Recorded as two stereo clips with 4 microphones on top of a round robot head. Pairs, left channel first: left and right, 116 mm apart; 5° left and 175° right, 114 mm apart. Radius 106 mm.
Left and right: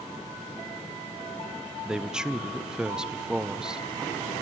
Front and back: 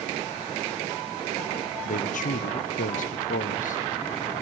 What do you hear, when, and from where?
1.9 s a man speaking: 5° right, 0.6 m